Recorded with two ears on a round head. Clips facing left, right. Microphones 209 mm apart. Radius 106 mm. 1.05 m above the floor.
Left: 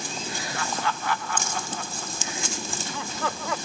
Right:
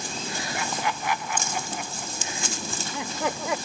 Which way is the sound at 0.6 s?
15° right (ahead or behind).